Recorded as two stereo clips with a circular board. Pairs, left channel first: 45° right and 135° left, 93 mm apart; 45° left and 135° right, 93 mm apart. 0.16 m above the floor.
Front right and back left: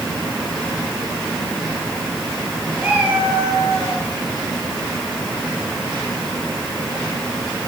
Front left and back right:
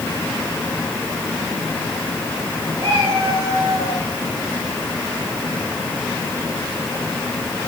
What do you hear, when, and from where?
2.8 s a cat meowing: 150° right, 9 m